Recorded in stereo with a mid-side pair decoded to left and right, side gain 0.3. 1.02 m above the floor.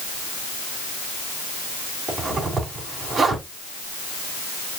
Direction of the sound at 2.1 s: 65° right.